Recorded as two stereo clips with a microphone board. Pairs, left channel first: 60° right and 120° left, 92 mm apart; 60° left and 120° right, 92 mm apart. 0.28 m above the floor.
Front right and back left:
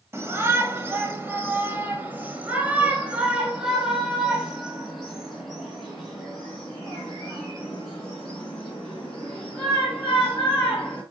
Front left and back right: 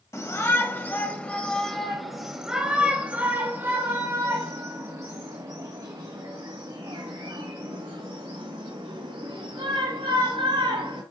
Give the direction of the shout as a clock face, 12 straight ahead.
9 o'clock.